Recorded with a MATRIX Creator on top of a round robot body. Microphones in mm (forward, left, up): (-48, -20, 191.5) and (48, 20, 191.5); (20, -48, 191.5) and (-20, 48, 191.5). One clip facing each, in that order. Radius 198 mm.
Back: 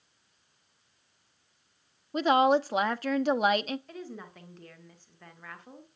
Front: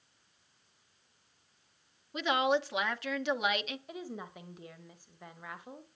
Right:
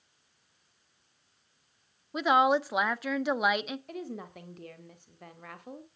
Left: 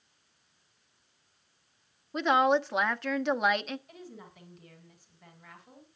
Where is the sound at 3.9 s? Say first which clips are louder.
Even, right 8 dB; 55° right, 1.5 m.